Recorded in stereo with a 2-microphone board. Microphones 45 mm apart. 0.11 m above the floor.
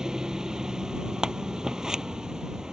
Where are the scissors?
15° right (ahead or behind).